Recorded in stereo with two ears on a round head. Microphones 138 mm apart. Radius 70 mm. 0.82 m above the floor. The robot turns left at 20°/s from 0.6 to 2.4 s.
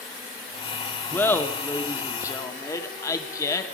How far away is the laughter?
About 0.8 m.